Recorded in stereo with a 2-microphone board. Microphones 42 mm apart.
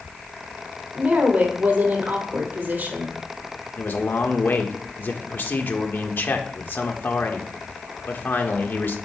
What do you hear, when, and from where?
0.9 s a woman speaking: 55° right (ahead or behind), 2.5 m
3.8 s a man speaking: 50° left (ahead or behind), 1.3 m